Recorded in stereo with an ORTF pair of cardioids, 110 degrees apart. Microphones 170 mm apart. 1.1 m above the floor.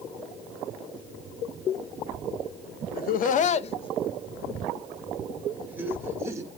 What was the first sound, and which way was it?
Laughter, 70° left.